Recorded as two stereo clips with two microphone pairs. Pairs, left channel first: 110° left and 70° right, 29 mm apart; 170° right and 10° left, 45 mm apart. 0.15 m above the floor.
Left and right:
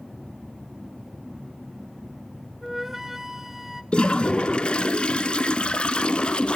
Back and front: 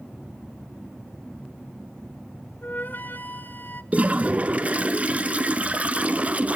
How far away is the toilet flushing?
About 0.7 m.